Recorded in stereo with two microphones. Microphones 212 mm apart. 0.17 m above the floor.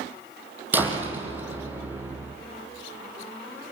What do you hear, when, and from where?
0.7 s a door slam: 10° right (ahead or behind), 5.5 m